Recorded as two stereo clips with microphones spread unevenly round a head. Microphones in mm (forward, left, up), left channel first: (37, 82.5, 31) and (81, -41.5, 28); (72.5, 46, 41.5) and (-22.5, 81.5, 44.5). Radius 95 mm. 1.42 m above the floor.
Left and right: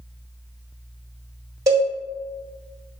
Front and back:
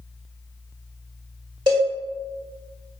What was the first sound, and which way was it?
A cowbell, 140° right.